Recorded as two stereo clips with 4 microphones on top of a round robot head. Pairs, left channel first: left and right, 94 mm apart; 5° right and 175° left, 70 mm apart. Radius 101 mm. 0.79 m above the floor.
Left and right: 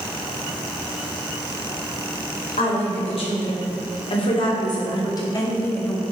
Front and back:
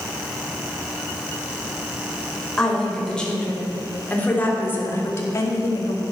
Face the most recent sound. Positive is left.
turn(degrees=15)